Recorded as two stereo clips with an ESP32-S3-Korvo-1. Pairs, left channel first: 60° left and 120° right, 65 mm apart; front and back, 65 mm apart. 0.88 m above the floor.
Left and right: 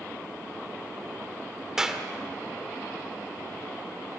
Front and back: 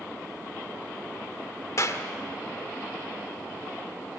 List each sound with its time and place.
1.8 s a clap: 40° right, 1.6 m